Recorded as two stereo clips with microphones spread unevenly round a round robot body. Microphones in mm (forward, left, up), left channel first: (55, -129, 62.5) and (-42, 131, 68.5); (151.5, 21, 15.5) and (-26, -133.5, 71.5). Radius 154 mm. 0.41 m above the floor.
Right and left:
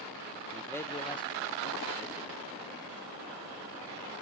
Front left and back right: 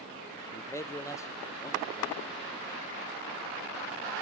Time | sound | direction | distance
0.5 | a man speaking | 15° left | 1.0 m